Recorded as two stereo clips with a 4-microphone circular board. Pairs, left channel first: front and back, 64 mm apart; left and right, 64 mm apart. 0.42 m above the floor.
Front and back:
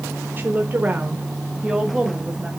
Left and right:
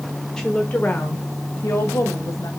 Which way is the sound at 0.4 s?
165° left.